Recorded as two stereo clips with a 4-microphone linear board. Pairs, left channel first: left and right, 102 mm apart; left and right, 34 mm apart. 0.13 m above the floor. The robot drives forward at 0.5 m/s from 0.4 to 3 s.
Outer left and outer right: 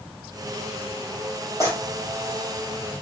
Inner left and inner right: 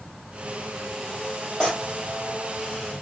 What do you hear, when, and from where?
1.6 s tearing paper: 30° left (ahead or behind), 1.9 m